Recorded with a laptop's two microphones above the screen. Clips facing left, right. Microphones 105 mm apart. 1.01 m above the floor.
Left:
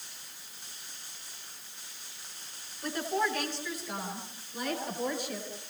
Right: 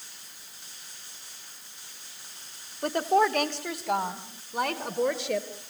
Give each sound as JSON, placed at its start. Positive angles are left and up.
{"t": 2.8, "sound": "a woman speaking", "side_deg": -65, "distance_m": 2.0}